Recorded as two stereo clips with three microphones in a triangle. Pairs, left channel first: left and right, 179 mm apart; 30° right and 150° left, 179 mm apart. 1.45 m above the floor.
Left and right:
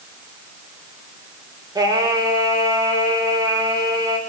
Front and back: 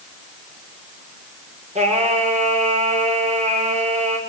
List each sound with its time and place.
1.8 s singing: 160° right, 7 m